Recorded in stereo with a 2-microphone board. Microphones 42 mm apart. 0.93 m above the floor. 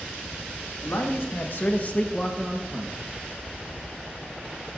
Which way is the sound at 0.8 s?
70° left (ahead or behind).